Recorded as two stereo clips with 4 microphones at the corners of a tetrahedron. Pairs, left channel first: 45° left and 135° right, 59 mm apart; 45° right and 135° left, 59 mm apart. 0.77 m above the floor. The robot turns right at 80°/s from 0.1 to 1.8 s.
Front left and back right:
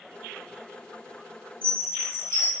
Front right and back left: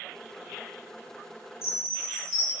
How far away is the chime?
About 1.3 m.